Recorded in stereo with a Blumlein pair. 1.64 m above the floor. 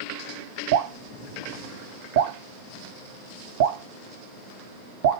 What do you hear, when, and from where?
0.7 s dripping: 50° right, 0.8 m